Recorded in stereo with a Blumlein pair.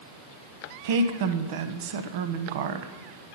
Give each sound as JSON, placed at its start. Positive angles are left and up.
{"t": 0.8, "sound": "a woman speaking", "azimuth_deg": -55, "distance_m": 0.7}